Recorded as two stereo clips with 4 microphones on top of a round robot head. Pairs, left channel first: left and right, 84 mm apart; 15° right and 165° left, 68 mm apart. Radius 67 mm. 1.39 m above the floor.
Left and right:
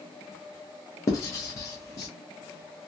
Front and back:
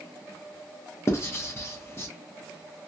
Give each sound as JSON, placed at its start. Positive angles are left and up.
{"t": 1.1, "sound": "writing", "azimuth_deg": 35, "distance_m": 0.7}